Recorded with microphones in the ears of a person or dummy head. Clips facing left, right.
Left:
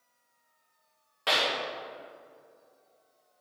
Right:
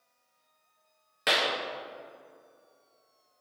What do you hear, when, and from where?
1.3 s a clap: 20° right (ahead or behind), 0.8 m